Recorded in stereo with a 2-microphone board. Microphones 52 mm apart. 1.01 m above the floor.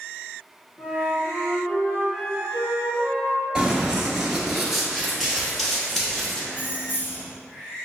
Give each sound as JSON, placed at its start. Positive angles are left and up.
{"t": 0.8, "sound": "a flute", "side_deg": 40, "distance_m": 1.2}
{"t": 3.5, "sound": "running footsteps", "side_deg": -15, "distance_m": 1.0}
{"t": 6.5, "sound": "keys jangling", "side_deg": 45, "distance_m": 0.7}